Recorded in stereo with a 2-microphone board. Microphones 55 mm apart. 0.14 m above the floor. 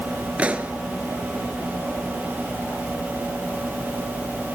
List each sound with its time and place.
0.4 s a pop: 25° right (ahead or behind), 1.5 m